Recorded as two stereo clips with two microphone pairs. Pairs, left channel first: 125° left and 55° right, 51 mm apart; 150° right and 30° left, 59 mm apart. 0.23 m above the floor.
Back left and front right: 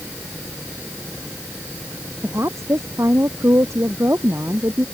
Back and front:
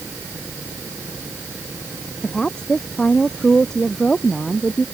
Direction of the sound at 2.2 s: 75° right.